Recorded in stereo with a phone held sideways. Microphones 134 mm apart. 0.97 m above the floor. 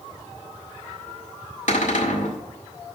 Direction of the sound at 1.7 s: 75° left (ahead or behind).